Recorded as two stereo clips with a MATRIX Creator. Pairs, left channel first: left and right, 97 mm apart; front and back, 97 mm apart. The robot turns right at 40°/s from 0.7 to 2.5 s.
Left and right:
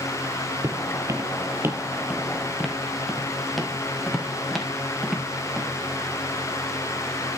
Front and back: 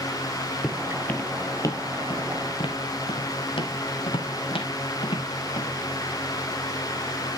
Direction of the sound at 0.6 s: 80° right.